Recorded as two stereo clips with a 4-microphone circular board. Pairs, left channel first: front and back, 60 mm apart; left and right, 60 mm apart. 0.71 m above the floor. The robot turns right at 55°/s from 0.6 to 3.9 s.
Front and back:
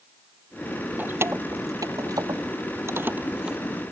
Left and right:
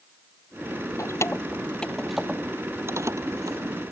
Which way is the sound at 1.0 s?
120° left.